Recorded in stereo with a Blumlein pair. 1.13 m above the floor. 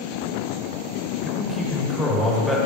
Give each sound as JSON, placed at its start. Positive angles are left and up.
{"t": 1.2, "sound": "a man speaking", "azimuth_deg": 0, "distance_m": 2.0}